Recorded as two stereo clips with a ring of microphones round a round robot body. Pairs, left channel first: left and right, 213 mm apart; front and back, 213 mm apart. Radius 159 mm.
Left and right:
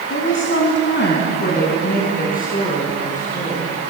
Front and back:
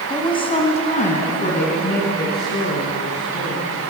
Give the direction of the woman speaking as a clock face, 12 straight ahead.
10 o'clock.